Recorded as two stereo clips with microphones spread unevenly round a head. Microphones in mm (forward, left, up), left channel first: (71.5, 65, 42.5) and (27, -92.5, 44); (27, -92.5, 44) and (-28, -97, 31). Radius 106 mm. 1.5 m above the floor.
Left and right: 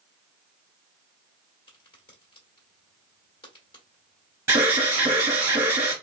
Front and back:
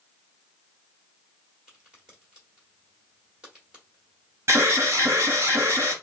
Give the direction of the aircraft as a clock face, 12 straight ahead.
I don't hear an aircraft.